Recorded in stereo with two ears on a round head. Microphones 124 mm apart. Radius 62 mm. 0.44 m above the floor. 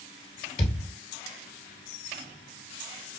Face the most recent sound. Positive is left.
turn(degrees=40)  # may be behind; listen again after turning